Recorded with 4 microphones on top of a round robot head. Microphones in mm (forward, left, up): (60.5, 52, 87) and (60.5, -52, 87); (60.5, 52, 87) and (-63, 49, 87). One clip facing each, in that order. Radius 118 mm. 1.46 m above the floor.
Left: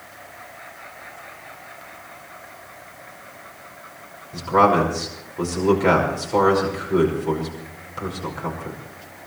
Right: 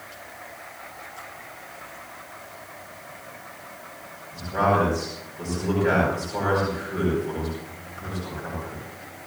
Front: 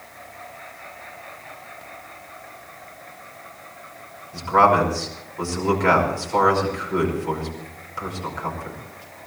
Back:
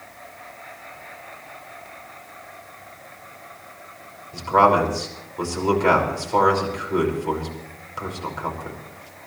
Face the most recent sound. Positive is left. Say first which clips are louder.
# left 5 dB, even
turn(degrees=110)